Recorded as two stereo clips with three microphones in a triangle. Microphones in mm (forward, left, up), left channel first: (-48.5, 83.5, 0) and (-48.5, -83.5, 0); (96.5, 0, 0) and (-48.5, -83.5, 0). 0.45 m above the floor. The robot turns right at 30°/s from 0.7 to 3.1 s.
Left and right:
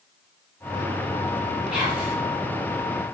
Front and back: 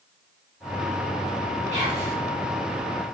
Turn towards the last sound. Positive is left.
turn(degrees=-130)